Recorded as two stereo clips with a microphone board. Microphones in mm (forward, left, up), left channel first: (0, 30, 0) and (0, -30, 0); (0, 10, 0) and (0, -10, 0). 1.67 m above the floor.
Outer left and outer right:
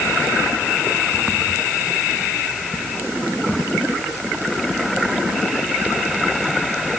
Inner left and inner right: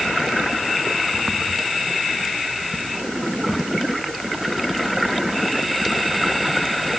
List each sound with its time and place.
Only background noise.